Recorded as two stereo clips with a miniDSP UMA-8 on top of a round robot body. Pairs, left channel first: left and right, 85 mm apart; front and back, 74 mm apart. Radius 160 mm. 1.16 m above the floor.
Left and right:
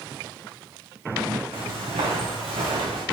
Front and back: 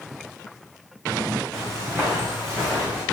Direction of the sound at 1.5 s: 85° right.